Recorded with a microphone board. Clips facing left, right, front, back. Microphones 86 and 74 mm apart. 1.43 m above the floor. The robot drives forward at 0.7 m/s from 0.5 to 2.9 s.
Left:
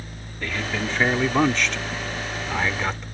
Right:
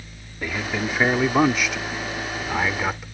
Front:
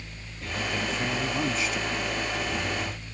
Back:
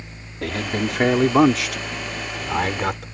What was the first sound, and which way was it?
A man speaking, 170° right.